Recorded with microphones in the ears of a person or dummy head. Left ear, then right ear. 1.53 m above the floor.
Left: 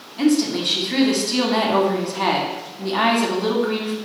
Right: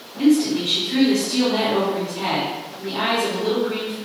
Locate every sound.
0.2 s a woman speaking: 75° left (ahead or behind), 1.0 m